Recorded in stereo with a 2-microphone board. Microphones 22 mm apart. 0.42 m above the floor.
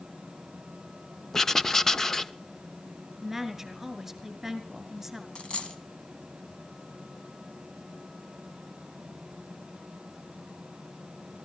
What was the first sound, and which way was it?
Writing, 20° left (ahead or behind).